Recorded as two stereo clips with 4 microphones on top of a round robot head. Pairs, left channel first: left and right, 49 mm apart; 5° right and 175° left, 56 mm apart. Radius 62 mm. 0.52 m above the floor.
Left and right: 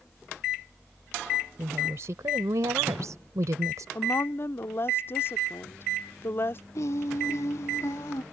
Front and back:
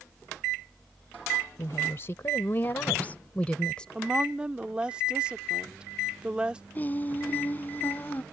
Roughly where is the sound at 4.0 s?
Left.